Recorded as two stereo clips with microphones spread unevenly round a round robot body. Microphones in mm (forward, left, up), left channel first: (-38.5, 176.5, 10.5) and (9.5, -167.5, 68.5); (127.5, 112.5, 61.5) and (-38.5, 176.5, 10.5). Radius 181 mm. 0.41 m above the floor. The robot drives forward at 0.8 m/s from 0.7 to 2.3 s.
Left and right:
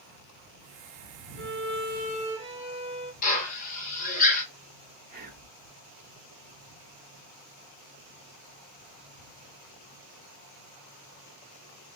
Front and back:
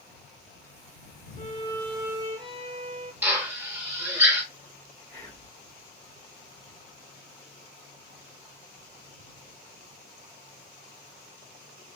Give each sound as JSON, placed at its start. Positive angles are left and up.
{"t": 1.4, "sound": "a violin", "azimuth_deg": -40, "distance_m": 0.6}
{"t": 3.2, "sound": "a drill", "azimuth_deg": 120, "distance_m": 1.1}
{"t": 5.1, "sound": "whispering", "azimuth_deg": -125, "distance_m": 0.7}